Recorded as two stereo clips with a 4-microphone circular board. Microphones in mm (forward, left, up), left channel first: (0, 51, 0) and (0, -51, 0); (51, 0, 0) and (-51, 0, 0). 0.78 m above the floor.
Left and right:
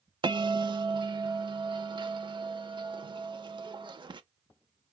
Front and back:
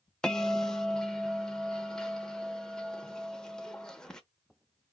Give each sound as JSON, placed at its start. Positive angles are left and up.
{"t": 0.2, "sound": "a bell", "azimuth_deg": -80, "distance_m": 0.6}